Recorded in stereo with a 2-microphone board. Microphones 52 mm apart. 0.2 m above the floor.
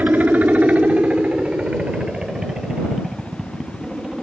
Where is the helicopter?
35° right (ahead or behind); by 4.2 s 10° right (ahead or behind).